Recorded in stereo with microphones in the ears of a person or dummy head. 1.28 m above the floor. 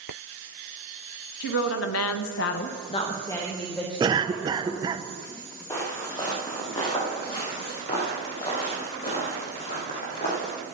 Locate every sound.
1.4 s a woman speaking: 55° left (ahead or behind), 1.3 m; by 4.9 s 5° right (ahead or behind), 3 m
4.0 s a cough: 20° right (ahead or behind), 0.7 m
5.7 s footsteps: 20° left (ahead or behind), 3 m; by 10.5 s 35° left (ahead or behind), 5 m